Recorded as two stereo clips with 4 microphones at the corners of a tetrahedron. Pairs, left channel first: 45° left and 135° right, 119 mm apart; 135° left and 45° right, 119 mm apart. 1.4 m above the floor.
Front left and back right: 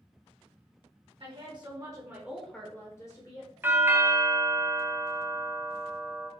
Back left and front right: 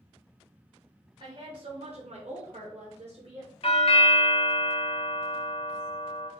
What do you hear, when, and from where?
1.2 s a woman speaking: 95° right, 1.3 m; by 3.5 s 5° left, 1.1 m
3.6 s a doorbell: 155° left, 0.6 m